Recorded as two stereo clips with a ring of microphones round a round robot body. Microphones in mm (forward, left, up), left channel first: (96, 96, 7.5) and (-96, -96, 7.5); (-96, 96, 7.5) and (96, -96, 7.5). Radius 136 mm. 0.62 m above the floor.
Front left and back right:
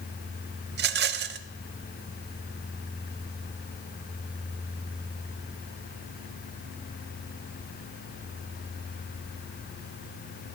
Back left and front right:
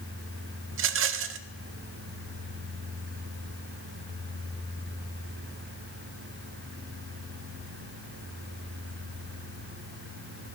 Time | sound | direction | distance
0.7 | a rattle | 85° right | 0.6 m